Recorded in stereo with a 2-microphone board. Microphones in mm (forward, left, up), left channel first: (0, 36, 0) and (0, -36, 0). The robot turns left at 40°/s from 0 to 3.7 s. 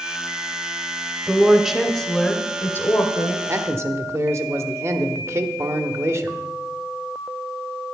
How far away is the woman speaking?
About 1.4 m.